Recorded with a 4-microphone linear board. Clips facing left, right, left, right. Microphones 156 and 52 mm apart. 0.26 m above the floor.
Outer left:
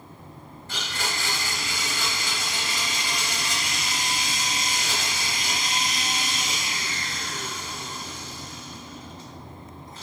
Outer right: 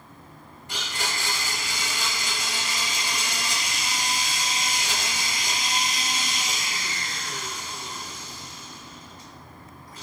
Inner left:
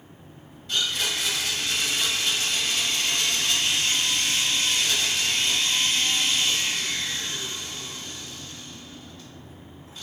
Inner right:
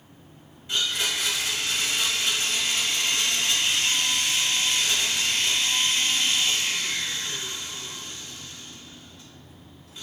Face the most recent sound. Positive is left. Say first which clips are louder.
# even, even
turn(degrees=-15)  # may be behind; listen again after turning